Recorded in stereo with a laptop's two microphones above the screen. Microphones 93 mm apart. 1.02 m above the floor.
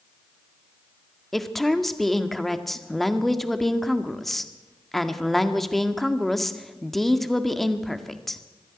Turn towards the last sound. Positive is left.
turn(degrees=0)  # may be behind; listen again after turning